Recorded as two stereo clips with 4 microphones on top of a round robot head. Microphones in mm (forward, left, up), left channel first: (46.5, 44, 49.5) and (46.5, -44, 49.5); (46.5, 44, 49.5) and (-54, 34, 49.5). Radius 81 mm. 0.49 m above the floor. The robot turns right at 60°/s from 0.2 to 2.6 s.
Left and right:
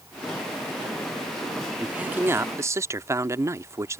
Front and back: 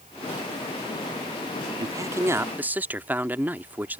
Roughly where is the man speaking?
Behind.